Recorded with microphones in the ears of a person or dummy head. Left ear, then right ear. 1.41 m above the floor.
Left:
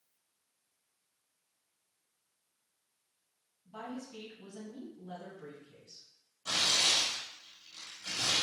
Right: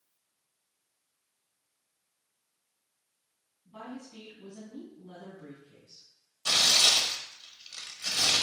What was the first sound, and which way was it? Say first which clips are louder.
A woman speaking: left 1 dB; 25° left (ahead or behind).